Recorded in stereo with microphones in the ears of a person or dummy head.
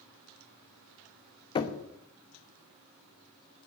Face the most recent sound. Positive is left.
turn(degrees=30)  # may be behind; listen again after turning